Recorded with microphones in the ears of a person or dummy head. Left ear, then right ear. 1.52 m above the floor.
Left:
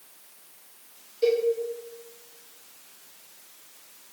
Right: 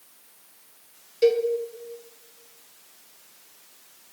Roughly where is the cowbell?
Right.